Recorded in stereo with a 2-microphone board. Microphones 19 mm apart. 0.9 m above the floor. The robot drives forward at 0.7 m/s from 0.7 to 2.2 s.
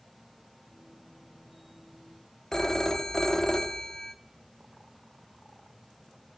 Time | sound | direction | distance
2.5 | a phone ringing | 30° left (ahead or behind) | 0.9 m